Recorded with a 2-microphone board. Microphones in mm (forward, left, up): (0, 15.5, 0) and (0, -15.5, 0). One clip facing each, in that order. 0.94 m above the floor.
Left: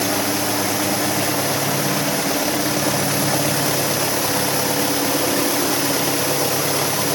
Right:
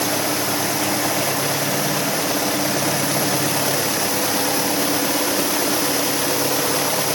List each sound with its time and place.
Only background noise.